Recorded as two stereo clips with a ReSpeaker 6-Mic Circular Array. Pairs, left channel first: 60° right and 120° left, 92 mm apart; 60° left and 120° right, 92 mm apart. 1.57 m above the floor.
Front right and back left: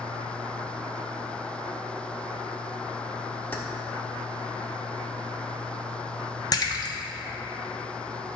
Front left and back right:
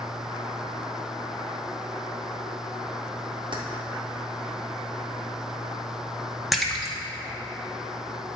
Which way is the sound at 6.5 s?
35° right.